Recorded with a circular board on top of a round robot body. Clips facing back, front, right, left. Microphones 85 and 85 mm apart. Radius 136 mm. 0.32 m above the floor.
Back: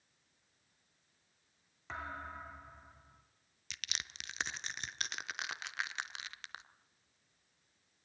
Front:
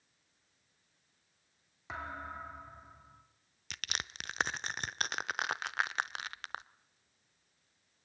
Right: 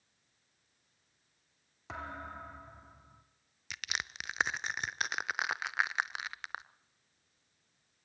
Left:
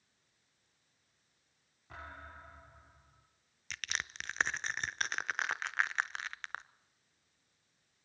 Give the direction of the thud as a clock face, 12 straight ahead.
3 o'clock.